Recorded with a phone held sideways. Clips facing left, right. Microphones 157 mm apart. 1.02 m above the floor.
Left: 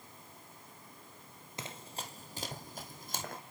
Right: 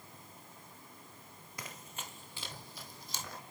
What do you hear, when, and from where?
1.6 s running footsteps: 25° left (ahead or behind), 1.1 m; by 3.4 s 50° left (ahead or behind), 2 m